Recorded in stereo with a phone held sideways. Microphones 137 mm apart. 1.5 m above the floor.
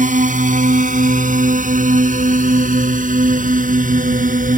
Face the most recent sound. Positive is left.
turn(degrees=-70)  # may be behind; listen again after turning